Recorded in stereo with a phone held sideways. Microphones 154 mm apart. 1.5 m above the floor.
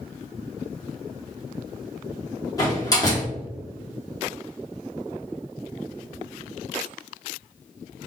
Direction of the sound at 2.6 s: 25° left (ahead or behind).